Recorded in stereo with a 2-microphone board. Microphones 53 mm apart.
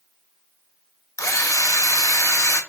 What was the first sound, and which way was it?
A drill, 80° left.